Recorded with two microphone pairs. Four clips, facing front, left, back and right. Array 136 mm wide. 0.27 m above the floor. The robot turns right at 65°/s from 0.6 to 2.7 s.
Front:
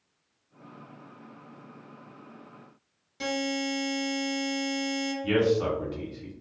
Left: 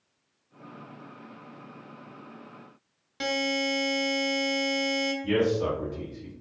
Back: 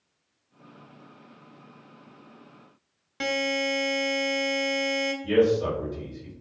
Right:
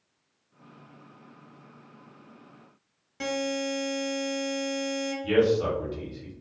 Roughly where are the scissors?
I don't hear scissors.